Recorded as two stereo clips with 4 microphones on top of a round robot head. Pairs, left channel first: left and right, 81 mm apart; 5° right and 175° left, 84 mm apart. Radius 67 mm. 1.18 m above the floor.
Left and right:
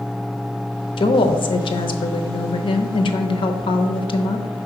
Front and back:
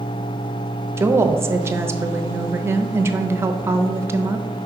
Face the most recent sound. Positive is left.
turn(degrees=115)